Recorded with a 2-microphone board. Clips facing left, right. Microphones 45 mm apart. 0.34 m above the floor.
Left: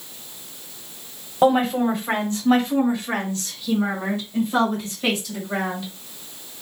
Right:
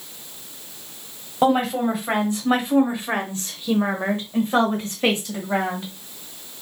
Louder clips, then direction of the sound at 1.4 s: Left 1 dB; 5° right (ahead or behind).